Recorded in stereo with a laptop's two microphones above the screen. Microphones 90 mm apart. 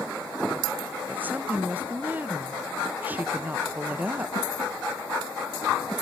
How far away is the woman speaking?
About 0.5 m.